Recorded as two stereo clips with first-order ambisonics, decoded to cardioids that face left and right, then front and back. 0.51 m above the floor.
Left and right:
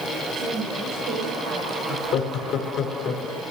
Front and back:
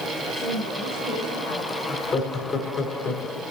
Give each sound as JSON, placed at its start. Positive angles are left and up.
{"t": 0.3, "sound": "a woman speaking", "azimuth_deg": -60, "distance_m": 3.0}
{"t": 1.9, "sound": "laughter", "azimuth_deg": 55, "distance_m": 1.2}